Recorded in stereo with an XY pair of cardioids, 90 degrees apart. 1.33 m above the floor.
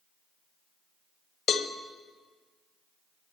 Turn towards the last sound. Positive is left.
turn(degrees=65)